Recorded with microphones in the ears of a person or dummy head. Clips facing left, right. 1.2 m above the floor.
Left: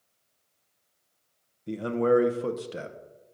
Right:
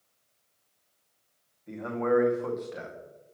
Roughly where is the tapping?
I don't hear tapping.